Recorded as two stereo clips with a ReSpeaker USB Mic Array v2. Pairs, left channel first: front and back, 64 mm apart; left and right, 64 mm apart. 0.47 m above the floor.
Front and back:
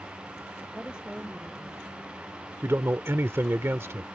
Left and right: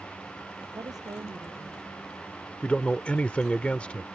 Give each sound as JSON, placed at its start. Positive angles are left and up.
{"t": 0.7, "sound": "a woman speaking", "azimuth_deg": -105}
{"t": 2.6, "sound": "a man speaking", "azimuth_deg": 150}